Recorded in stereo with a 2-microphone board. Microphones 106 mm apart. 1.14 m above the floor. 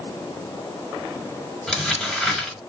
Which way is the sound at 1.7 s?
5° left (ahead or behind).